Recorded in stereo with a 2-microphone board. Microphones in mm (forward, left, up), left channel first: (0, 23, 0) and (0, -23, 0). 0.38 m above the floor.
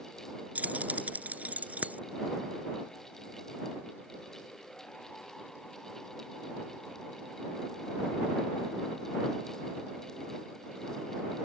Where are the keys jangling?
35° right (ahead or behind).